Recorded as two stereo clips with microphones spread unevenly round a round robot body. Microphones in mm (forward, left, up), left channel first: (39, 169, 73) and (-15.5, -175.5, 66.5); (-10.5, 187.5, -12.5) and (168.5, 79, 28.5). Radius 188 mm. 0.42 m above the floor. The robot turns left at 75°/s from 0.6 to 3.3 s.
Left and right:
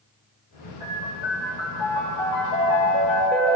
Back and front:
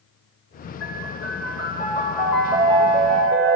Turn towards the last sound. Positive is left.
turn(degrees=-10)